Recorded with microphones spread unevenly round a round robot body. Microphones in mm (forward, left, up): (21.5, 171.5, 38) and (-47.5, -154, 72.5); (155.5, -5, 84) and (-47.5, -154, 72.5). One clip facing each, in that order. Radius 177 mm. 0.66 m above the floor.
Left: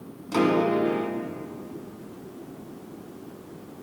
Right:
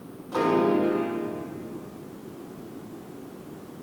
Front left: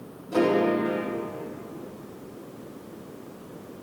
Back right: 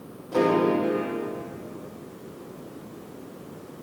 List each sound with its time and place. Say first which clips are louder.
0.3 s a piano: even, back right 1 dB; 120° left, 1.4 m